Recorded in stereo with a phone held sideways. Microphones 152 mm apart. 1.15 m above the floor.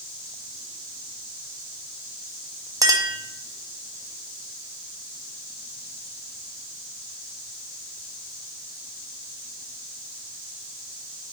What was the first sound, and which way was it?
A clink, 25° right (ahead or behind).